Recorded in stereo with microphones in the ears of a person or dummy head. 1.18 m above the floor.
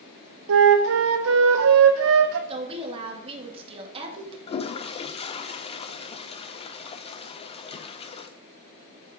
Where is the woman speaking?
30° right (ahead or behind), 1.9 m.